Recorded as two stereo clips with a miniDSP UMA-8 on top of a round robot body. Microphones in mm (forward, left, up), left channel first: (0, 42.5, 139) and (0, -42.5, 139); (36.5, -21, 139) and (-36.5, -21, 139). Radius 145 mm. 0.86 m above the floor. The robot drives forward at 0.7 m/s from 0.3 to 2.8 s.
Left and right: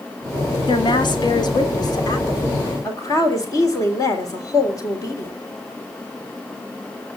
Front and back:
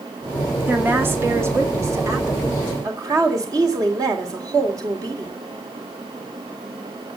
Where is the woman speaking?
115° left, 2.5 m; by 5.3 s 140° left, 3 m.